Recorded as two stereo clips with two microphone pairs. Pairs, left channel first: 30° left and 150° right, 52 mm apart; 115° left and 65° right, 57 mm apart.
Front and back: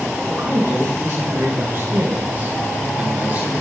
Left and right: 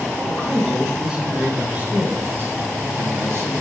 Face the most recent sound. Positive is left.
turn(degrees=-90)